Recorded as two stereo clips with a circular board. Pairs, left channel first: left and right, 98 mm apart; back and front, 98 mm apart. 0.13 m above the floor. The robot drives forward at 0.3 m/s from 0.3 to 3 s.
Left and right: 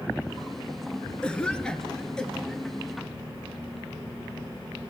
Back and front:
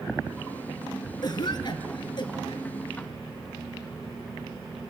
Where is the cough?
165° left, 2.0 m; by 2.6 s 170° left, 2.5 m.